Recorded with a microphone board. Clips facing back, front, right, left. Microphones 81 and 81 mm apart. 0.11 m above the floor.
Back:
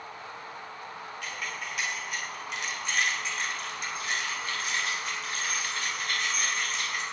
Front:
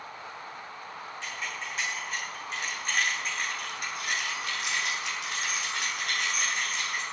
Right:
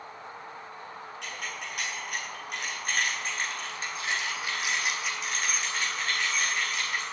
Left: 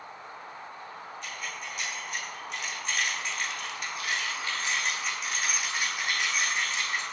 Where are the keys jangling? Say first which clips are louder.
Even, right 1 dB; 65° right, 6 m; by 7.0 s 30° left, 5.5 m.